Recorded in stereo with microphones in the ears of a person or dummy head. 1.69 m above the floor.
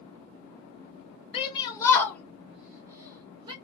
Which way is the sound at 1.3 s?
35° left (ahead or behind).